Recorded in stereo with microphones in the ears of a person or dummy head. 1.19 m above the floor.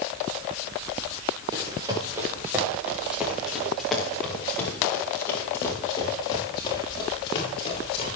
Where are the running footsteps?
25° right (ahead or behind), 7 m; by 8.1 s 30° left (ahead or behind), 11 m.